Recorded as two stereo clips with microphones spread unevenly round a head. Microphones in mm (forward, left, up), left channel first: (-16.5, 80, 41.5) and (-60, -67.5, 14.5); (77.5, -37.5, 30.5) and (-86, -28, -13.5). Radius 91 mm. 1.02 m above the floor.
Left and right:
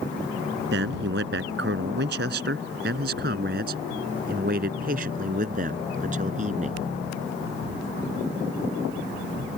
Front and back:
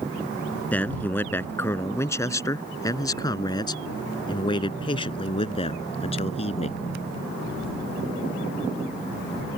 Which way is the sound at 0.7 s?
85° right.